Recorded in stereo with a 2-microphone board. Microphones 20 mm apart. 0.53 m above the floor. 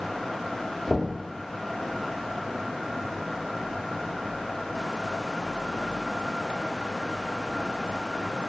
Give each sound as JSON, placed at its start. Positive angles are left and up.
{"t": 0.9, "sound": "knocking", "side_deg": 35, "distance_m": 0.8}